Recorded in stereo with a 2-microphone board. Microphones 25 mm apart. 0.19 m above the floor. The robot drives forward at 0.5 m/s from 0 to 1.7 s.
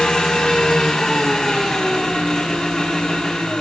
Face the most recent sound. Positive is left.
turn(degrees=30)  # may be behind; listen again after turning